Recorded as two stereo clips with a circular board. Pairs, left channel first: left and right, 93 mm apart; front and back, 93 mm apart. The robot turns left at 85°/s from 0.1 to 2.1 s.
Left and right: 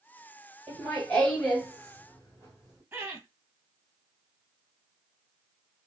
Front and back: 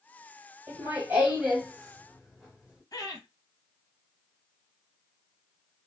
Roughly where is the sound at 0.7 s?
Behind.